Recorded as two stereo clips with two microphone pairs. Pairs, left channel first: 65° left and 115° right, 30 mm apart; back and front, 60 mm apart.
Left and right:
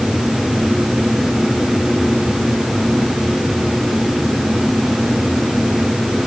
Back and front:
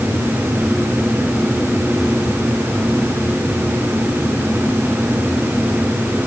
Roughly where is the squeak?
I don't hear a squeak.